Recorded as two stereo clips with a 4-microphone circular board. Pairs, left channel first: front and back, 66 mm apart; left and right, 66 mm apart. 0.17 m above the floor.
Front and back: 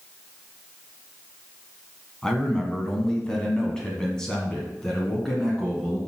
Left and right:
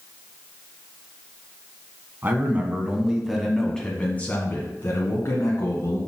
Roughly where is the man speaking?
Right.